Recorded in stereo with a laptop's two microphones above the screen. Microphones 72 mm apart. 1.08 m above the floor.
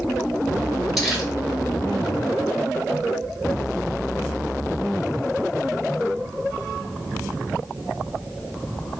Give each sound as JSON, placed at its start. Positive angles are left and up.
{"t": 1.0, "sound": "crumpling", "side_deg": 0, "distance_m": 4.0}